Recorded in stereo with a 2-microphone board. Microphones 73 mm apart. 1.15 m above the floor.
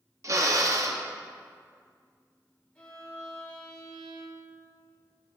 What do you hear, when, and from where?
0.2 s a drill: 45° right (ahead or behind), 0.7 m
2.8 s a violin: 15° left (ahead or behind), 2 m